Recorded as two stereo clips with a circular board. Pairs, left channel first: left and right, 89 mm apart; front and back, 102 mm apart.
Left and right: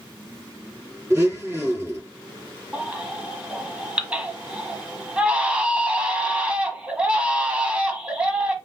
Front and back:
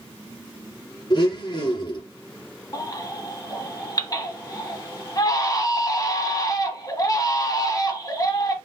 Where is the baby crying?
20° right, 1.0 m.